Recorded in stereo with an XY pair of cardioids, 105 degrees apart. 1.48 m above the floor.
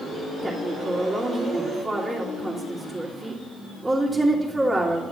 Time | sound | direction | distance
0.4 | a woman speaking | 25° right | 2.5 m